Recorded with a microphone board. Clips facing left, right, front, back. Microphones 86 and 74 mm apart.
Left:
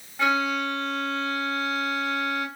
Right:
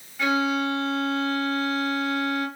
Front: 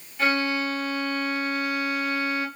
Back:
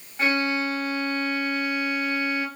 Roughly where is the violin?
Behind left.